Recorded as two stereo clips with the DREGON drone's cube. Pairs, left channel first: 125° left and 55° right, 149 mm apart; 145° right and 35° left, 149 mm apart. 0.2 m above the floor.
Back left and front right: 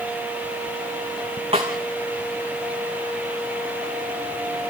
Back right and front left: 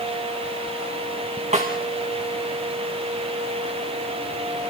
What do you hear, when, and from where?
1.5 s a snare drum: 10° right, 5 m